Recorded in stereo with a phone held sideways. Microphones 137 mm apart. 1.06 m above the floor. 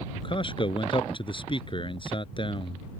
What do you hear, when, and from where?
0.1 s a man speaking: 35° left (ahead or behind)